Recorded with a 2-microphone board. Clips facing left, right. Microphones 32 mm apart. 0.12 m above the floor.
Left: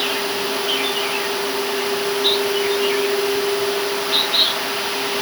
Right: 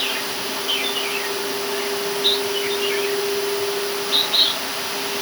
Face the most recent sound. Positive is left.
No sound to turn to.